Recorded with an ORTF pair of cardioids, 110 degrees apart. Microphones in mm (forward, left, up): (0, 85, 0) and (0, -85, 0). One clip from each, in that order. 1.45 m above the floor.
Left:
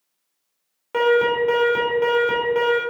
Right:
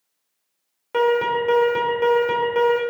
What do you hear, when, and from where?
0.9 s an alarm: straight ahead, 3 m